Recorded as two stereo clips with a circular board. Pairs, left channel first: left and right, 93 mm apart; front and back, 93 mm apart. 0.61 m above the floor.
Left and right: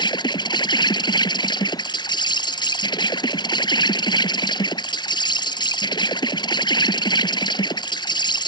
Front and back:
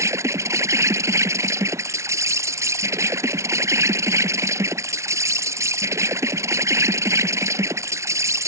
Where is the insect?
125° left.